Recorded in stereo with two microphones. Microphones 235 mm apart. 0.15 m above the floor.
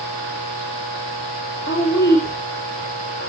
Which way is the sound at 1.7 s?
50° left (ahead or behind).